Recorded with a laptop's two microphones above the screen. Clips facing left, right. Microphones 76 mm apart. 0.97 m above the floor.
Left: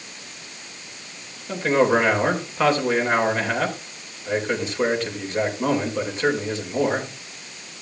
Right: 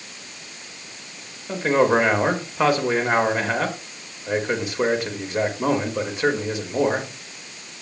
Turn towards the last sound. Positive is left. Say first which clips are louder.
# even
turn(degrees=-10)  # may be behind; listen again after turning